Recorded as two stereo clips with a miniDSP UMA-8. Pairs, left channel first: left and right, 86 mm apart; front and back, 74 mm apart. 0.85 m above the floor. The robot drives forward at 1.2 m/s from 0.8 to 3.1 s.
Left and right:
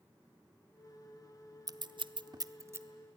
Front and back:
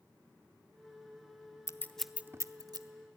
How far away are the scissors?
About 0.7 m.